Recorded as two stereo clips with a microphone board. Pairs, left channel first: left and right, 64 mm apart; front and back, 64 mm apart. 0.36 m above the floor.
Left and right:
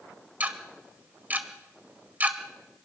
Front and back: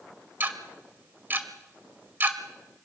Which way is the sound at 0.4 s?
140° right.